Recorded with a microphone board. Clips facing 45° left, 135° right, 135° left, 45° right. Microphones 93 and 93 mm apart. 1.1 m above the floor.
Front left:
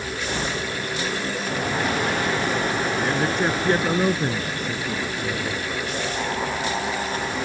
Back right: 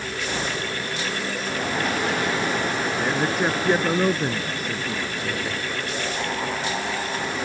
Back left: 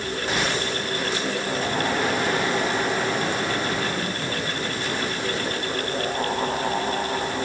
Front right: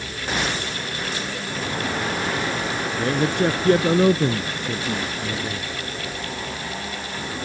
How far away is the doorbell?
No doorbell in this recording.